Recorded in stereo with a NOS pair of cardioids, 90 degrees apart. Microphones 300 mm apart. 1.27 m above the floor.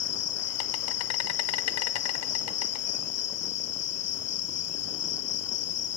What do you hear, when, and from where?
0.0 s an insect: 55° left, 0.8 m